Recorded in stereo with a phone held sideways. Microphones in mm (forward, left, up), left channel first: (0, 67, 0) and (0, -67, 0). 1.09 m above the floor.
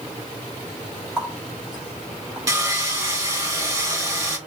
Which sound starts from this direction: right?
Sawing, at 2.5 s.